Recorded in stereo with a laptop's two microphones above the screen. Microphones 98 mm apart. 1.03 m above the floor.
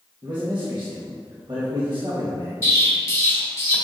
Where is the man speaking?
55° right (ahead or behind), 1.2 m.